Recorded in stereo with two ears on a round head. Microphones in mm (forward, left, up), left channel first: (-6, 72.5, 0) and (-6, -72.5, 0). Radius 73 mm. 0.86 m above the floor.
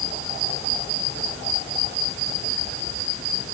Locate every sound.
Only background noise.